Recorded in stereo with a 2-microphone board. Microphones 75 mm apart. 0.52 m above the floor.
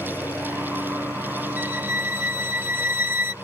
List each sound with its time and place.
0.0 s a lawn mower: 35° left (ahead or behind); by 3.4 s 40° left (ahead or behind)
1.6 s a violin: 25° right (ahead or behind)